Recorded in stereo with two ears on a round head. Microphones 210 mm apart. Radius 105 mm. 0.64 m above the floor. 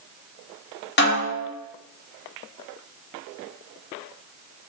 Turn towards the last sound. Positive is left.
turn(degrees=50)  # may be behind; listen again after turning